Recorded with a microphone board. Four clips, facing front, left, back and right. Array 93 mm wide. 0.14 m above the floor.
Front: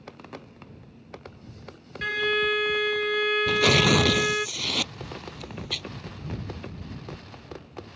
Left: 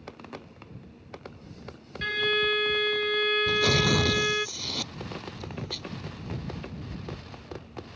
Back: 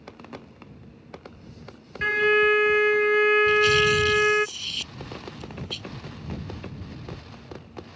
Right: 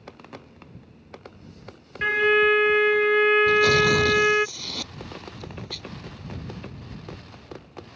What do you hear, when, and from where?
2.0 s a violin: 125° right
3.5 s tearing paper: straight ahead